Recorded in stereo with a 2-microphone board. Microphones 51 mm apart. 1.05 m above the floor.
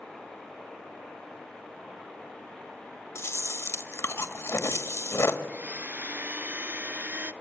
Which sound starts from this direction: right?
A blender, at 5.5 s.